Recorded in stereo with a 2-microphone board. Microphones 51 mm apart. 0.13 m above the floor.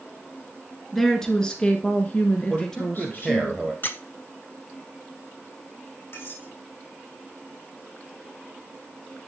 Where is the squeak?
45° left (ahead or behind), 0.7 m.